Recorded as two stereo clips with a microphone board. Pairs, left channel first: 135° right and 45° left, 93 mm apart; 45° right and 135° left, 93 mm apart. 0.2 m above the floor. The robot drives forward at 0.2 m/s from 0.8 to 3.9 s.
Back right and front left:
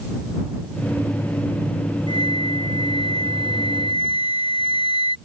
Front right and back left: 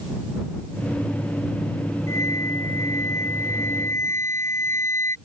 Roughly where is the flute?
Right.